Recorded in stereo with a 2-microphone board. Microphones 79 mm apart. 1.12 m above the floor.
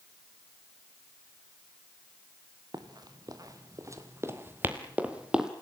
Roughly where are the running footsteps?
Right.